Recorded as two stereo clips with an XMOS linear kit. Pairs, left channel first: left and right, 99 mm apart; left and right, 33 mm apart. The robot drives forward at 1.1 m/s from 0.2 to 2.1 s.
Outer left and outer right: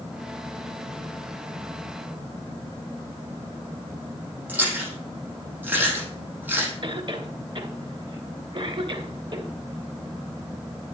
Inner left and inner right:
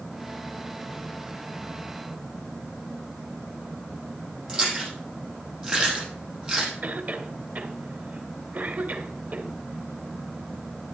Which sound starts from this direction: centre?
Chewing, at 4.5 s.